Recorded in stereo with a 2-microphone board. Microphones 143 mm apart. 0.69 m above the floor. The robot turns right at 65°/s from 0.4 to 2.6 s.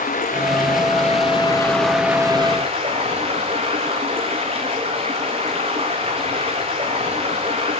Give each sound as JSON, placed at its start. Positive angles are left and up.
{"t": 0.0, "sound": "running water", "azimuth_deg": 80, "distance_m": 6.0}